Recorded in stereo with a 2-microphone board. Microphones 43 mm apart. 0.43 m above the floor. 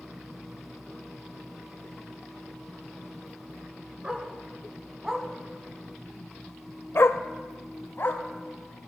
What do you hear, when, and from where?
4.0 s a dog barking: 20° right (ahead or behind), 2.0 m; by 8.2 s 55° left (ahead or behind), 1.2 m